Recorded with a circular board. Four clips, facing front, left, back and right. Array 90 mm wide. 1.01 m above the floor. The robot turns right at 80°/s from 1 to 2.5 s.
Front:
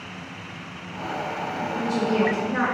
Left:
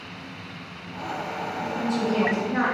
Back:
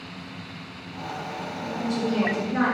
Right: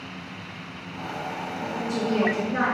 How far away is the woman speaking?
About 2.5 m.